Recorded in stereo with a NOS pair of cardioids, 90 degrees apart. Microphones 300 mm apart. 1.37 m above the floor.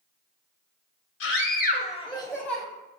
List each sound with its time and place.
1.2 s a scream: 55° left, 0.7 m; by 2.6 s 15° right, 0.9 m